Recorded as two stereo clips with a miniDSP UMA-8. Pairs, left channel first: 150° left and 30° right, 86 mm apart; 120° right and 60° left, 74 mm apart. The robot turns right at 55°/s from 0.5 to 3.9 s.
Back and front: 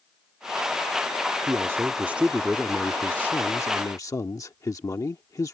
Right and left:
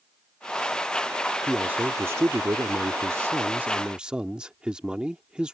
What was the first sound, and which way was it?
A man speaking, 5° right.